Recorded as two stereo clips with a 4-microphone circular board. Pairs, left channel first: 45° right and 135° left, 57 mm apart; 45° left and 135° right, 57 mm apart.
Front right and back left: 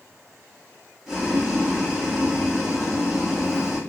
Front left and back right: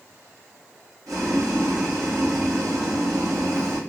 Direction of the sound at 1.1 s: 130° right.